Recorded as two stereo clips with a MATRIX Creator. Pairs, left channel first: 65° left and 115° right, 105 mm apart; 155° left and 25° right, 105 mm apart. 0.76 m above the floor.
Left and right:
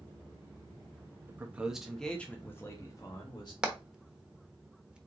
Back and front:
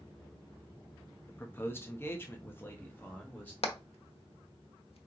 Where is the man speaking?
155° right, 0.9 m; by 3.5 s 90° left, 1.3 m.